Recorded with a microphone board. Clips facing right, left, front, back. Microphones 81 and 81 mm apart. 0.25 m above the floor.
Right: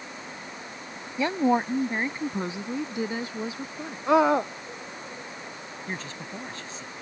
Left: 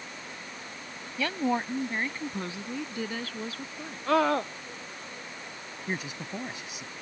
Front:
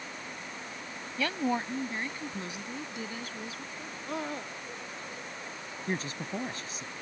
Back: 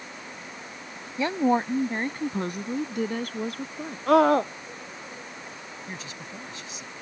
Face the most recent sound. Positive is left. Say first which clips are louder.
# left 2 dB, front 9 dB
turn(degrees=20)